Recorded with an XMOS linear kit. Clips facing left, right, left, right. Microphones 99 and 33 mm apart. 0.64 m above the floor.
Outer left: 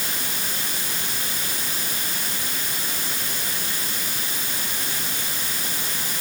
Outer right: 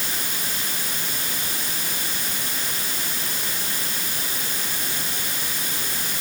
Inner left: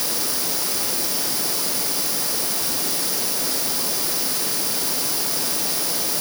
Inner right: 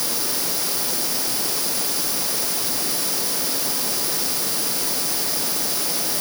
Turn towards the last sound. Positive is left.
No sound to turn to.